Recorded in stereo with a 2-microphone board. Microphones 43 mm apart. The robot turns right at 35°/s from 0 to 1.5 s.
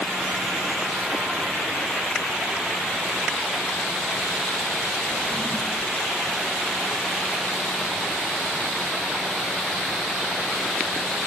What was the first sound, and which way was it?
A drawer, 20° left (ahead or behind).